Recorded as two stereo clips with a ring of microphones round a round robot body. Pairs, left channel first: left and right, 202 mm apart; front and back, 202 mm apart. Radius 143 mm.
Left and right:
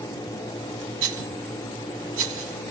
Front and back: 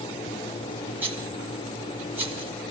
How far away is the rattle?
About 3.5 m.